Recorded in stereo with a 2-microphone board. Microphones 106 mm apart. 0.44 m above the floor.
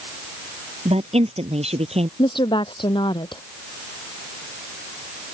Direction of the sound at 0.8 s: 75° right (ahead or behind).